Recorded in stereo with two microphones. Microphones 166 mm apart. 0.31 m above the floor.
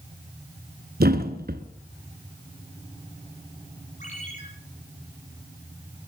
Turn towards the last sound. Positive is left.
turn(degrees=50)  # may be behind; listen again after turning